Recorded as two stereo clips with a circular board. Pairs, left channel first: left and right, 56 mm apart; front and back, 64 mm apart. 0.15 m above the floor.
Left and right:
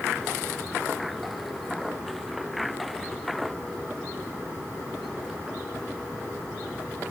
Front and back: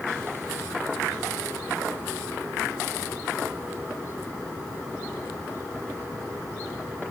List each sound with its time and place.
Only background noise.